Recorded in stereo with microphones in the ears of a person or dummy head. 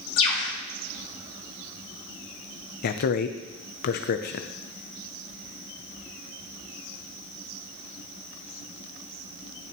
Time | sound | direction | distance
0.2 | a bird | 20° left (ahead or behind) | 1.3 m
2.8 | a man speaking | 50° left (ahead or behind) | 0.6 m